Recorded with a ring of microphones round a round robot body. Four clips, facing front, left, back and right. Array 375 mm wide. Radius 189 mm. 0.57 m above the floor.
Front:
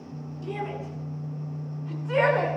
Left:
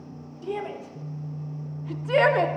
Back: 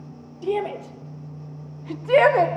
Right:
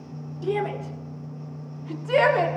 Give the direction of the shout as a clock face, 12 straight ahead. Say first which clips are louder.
Right 5 dB, back 8 dB; 5 o'clock.